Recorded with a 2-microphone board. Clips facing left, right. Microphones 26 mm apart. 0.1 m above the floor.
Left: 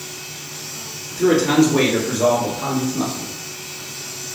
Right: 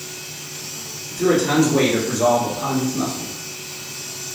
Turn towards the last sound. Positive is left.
turn(degrees=15)  # may be behind; listen again after turning